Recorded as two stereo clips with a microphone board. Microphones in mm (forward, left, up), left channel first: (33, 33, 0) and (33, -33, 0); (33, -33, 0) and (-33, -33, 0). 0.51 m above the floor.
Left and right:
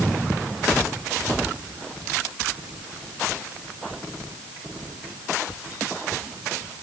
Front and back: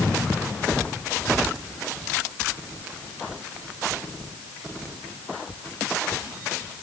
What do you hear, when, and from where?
Only background noise.